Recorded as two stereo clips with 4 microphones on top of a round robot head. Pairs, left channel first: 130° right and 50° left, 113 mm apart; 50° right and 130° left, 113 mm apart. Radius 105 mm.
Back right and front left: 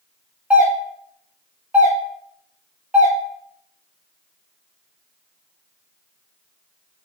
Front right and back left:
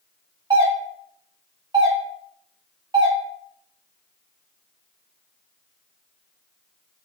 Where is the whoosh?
No whoosh in this recording.